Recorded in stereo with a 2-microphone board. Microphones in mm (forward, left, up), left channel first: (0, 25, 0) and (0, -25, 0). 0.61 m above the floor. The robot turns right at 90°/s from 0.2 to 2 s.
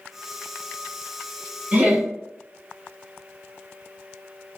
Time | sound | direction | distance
1.7 | laughter | 25° right (ahead or behind) | 0.8 m